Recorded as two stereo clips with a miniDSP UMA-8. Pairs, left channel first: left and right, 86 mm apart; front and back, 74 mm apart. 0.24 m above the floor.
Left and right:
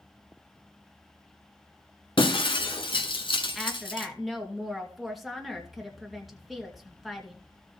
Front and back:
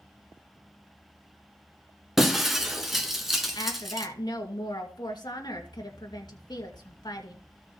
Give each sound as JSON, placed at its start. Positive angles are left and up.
{"t": 2.2, "sound": "breaking glass", "azimuth_deg": 95, "distance_m": 1.6}
{"t": 3.5, "sound": "a woman speaking", "azimuth_deg": 0, "distance_m": 3.0}